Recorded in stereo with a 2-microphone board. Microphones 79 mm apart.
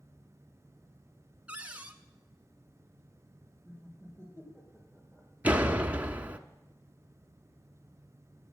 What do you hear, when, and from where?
1.5 s a cupboard door: 15° right (ahead or behind), 0.9 m
3.6 s laughter: 20° left (ahead or behind), 4.5 m
5.4 s a door slam: 20° right (ahead or behind), 0.8 m